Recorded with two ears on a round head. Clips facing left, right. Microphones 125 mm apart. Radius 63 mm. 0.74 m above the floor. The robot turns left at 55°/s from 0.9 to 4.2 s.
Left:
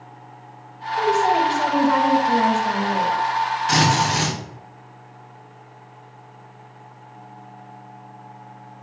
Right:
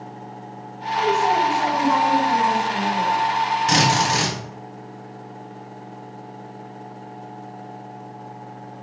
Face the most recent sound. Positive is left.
turn(degrees=-55)  # may be behind; listen again after turning